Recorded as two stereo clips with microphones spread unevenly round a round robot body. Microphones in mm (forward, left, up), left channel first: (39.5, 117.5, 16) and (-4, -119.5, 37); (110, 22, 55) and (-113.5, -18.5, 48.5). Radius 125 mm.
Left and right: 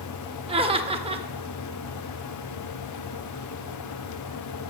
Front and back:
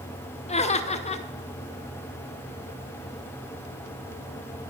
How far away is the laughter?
About 1.4 m.